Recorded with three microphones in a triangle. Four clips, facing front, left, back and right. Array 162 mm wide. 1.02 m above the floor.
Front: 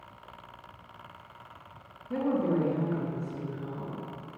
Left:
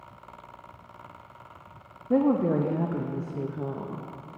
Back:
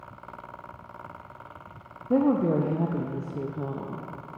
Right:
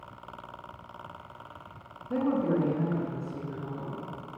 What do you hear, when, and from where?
2.1 s a woman speaking: 140° left, 0.9 m